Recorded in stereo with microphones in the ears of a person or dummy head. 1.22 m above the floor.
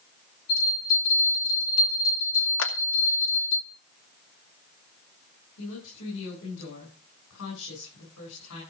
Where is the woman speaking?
80° left, 9 m.